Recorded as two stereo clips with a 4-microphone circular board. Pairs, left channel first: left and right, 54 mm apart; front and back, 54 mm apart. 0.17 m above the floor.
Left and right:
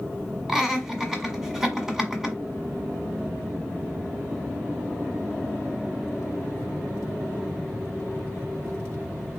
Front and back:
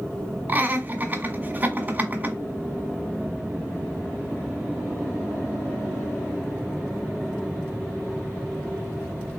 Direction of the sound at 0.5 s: 165° right.